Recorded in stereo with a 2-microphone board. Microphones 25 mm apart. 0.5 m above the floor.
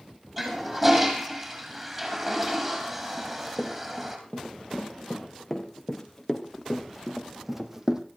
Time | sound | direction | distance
0.4 | a toilet flushing | 10° right (ahead or behind) | 4 m
3.2 | running footsteps | 25° left (ahead or behind) | 5 m